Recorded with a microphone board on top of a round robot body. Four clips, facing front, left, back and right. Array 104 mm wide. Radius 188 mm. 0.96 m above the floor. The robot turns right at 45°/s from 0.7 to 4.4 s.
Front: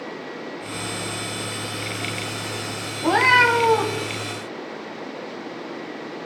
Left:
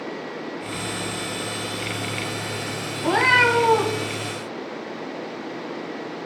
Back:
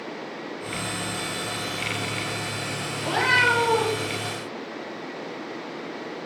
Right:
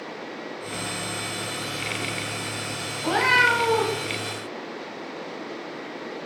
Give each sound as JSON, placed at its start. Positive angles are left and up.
{"t": 3.0, "sound": "a cat meowing", "azimuth_deg": 5, "distance_m": 2.0}